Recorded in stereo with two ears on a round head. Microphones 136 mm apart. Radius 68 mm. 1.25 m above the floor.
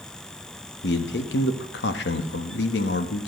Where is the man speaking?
85° left, 1.4 m.